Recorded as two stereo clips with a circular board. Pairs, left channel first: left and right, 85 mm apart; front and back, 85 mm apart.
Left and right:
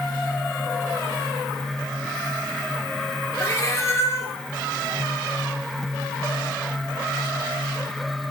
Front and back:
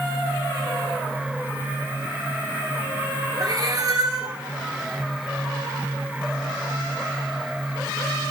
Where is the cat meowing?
145° left, 1.5 m.